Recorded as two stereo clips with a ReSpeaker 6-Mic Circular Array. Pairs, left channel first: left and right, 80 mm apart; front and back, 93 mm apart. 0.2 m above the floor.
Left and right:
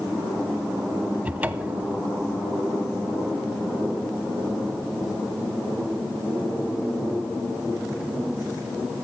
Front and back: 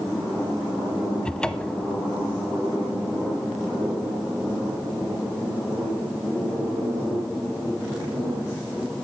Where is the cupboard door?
60° right, 0.5 m.